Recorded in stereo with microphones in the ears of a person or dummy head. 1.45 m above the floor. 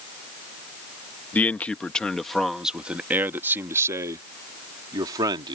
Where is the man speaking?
5° left (ahead or behind); by 5.5 s 30° right (ahead or behind).